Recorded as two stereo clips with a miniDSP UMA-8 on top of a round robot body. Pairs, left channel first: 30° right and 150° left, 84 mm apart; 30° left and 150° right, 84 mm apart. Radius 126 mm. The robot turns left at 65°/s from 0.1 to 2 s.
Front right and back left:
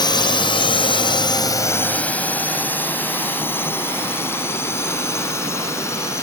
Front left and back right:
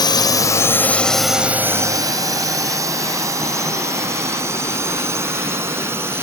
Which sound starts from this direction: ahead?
A drone, at 0.0 s.